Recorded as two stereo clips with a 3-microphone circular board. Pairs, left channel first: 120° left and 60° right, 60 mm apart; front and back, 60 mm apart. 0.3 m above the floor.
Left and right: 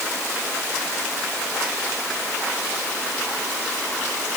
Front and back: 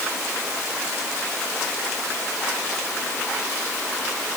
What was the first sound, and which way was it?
Only background noise.